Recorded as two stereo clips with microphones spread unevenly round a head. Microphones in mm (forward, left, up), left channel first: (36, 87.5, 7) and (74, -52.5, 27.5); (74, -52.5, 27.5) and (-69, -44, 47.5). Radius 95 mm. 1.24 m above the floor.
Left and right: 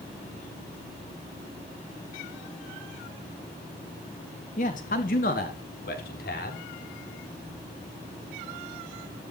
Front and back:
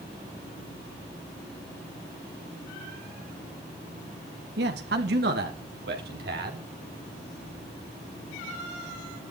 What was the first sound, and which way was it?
A man speaking, 155° left.